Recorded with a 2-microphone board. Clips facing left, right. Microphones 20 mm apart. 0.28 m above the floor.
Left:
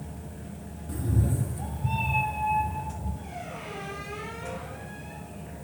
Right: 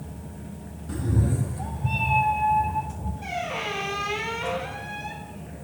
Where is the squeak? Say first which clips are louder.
Right 9 dB; 70° right (ahead or behind), 1.0 m.